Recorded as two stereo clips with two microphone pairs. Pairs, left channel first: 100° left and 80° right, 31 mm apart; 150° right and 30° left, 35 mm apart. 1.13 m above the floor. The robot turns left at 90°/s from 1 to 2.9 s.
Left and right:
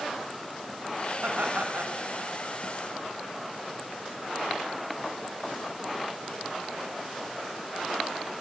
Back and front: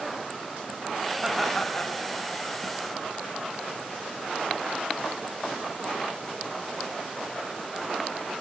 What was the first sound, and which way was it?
Laughter, 40° right.